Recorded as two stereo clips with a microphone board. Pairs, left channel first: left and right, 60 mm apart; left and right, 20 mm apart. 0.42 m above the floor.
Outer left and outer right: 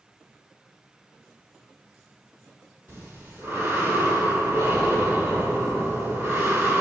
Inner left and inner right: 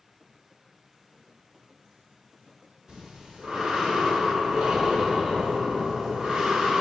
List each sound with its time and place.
2.9 s breathing: 40° right (ahead or behind), 1.5 m